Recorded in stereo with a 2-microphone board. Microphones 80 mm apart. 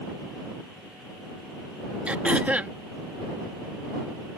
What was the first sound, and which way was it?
Throat clearing, 20° right (ahead or behind).